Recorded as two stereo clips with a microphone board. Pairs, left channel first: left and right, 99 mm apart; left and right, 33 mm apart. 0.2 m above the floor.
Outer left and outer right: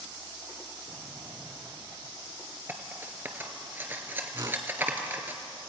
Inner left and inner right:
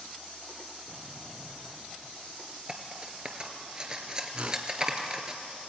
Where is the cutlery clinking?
20° right (ahead or behind), 2 m.